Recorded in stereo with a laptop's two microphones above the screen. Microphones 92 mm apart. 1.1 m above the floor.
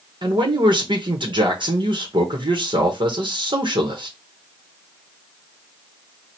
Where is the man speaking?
60° right (ahead or behind), 1.2 m.